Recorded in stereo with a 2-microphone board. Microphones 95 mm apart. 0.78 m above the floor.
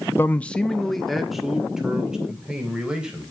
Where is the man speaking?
20° left (ahead or behind), 0.6 m; by 3.3 s 10° right (ahead or behind), 3.5 m.